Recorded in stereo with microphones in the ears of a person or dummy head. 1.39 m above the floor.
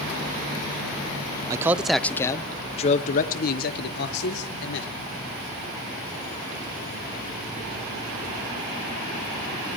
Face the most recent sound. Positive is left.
turn(degrees=70)  # may be behind; listen again after turning